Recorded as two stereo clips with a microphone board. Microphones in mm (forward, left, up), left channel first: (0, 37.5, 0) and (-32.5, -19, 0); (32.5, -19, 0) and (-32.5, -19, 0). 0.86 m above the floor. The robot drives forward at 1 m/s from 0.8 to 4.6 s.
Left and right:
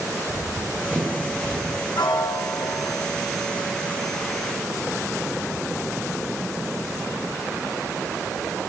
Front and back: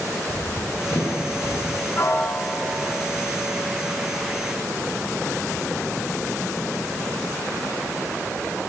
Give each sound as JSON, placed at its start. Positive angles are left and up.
{"t": 0.3, "sound": "running footsteps", "azimuth_deg": -50, "distance_m": 4.0}
{"t": 2.0, "sound": "a piano", "azimuth_deg": 50, "distance_m": 1.2}